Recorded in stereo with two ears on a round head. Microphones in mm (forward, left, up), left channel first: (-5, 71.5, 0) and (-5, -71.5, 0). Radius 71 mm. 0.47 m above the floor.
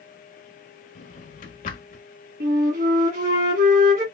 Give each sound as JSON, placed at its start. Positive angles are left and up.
{"t": 0.9, "sound": "a drawer", "side_deg": 50, "distance_m": 1.1}
{"t": 2.4, "sound": "a flute", "side_deg": -60, "distance_m": 1.7}